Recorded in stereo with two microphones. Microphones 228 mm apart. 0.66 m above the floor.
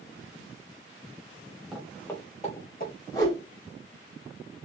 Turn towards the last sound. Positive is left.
turn(degrees=20)  # may be behind; listen again after turning